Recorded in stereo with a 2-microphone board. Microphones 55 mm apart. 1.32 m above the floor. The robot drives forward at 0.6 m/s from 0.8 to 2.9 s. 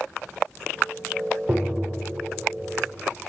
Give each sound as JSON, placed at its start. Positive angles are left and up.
{"t": 1.5, "sound": "tapping", "side_deg": -30, "distance_m": 2.0}